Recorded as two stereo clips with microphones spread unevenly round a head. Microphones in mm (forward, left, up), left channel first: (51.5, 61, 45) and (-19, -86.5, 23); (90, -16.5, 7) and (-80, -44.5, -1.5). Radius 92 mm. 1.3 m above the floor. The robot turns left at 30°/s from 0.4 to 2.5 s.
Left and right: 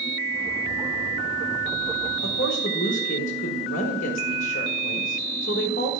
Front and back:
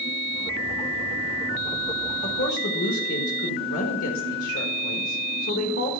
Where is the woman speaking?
30° left, 1.5 m; by 6.0 s 20° left, 1.5 m.